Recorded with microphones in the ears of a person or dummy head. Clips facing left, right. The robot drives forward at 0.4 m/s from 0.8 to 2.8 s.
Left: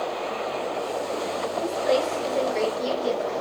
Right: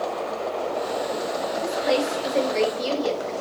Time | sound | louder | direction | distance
1.6 | a woman speaking | even | 35° right (ahead or behind) | 1.8 m